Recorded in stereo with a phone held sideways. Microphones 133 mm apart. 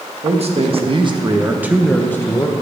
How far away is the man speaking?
About 1.3 m.